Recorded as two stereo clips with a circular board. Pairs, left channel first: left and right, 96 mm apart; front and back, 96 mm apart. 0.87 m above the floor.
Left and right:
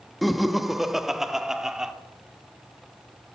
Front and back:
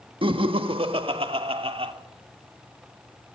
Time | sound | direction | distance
0.2 | laughter | straight behind | 1.3 m